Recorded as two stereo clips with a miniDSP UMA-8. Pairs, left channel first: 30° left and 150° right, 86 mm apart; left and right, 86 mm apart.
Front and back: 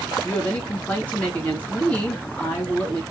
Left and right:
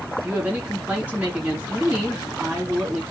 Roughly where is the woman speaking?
Ahead right.